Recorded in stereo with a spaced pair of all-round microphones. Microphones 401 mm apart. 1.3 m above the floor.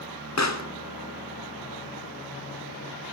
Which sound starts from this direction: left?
A pop, at 0.4 s.